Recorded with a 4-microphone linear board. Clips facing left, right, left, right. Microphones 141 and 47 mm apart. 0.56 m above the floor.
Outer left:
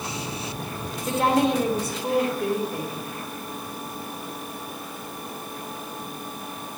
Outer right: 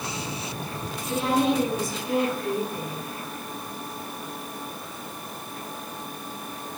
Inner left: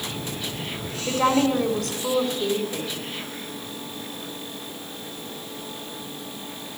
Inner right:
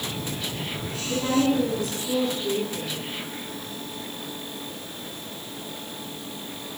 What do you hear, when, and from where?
1.1 s a woman speaking: 75° left (ahead or behind), 3 m